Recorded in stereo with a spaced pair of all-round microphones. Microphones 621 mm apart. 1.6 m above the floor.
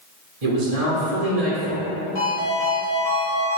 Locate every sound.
0.4 s a man speaking: 60° right (ahead or behind), 1.0 m
2.1 s a ringtone: 35° left (ahead or behind), 1.2 m